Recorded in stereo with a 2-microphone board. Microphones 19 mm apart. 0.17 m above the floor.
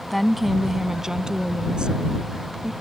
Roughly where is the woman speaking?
Centre.